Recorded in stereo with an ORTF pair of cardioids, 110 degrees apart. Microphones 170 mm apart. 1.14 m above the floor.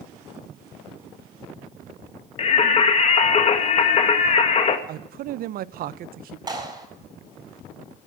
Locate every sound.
2.4 s singing: 40° left, 1.8 m
4.9 s a man speaking: 60° right, 0.6 m
6.5 s a clap: 20° right, 7.5 m